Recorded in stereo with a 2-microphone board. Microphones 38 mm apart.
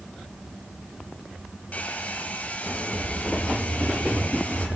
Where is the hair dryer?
40° left (ahead or behind), 4 m.